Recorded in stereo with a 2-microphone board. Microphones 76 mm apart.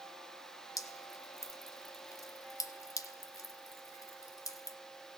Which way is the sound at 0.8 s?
50° left (ahead or behind).